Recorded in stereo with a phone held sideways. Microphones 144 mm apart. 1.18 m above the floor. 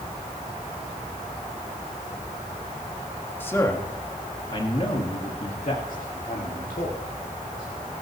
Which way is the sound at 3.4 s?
15° left (ahead or behind).